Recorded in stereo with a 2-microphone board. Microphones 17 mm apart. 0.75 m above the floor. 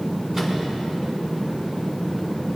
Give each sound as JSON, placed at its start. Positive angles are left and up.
{"t": 0.3, "sound": "a microwave", "side_deg": -40, "distance_m": 5.0}